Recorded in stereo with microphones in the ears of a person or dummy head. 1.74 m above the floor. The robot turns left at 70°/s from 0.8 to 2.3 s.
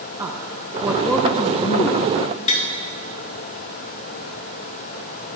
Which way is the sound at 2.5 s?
40° left (ahead or behind).